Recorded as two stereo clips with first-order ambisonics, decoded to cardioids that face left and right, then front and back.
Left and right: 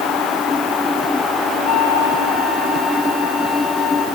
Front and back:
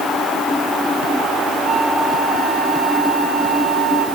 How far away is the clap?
I don't hear a clap.